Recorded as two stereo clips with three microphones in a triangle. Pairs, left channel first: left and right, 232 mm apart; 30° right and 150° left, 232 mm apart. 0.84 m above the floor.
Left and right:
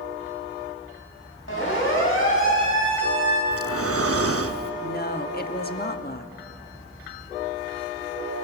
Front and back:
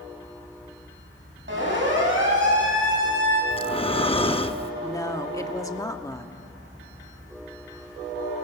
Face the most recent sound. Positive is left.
turn(degrees=45)